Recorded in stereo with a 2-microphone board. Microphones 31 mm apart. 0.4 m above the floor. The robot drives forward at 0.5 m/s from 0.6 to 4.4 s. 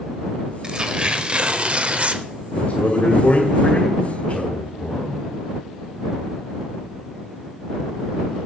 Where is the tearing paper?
25° right (ahead or behind), 1.1 m; by 2.2 s 40° right (ahead or behind), 0.8 m.